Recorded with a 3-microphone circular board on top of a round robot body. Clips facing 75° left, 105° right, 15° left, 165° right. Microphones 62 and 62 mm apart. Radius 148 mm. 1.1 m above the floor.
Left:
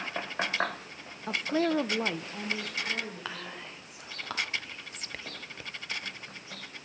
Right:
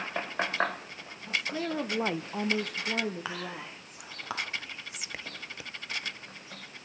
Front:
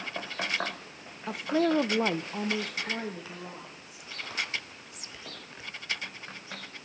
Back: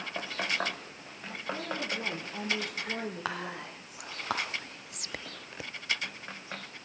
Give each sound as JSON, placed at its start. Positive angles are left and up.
{"t": 1.3, "sound": "a woman speaking", "azimuth_deg": 40, "distance_m": 0.8}
{"t": 3.2, "sound": "whispering", "azimuth_deg": 175, "distance_m": 0.7}